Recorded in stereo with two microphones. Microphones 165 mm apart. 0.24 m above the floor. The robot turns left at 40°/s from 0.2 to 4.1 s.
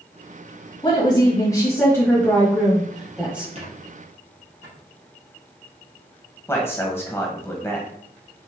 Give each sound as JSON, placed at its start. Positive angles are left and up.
{"t": 0.8, "sound": "a woman speaking", "side_deg": 25, "distance_m": 1.4}
{"t": 3.5, "sound": "a squeak", "side_deg": -40, "distance_m": 2.5}
{"t": 6.5, "sound": "a man speaking", "side_deg": 15, "distance_m": 0.9}